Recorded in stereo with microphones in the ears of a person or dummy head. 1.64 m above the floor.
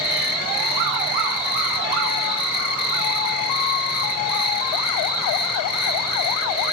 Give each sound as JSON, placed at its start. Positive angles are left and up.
{"t": 0.0, "sound": "an insect", "side_deg": 45, "distance_m": 0.8}